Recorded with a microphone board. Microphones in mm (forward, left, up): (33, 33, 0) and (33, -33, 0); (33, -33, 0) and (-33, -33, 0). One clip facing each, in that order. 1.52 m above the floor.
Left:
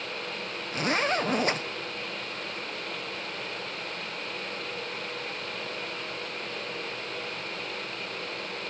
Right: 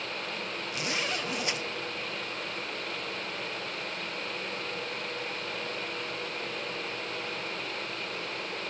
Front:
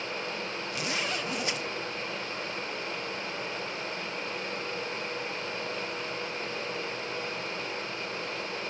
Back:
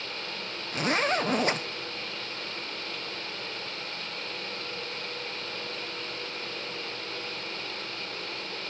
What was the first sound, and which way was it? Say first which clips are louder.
A zipper: left 8 dB, back 8 dB; 135° left.